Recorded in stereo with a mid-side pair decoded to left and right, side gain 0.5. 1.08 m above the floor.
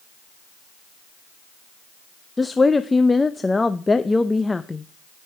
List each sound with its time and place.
2.4 s a woman speaking: 15° left, 0.6 m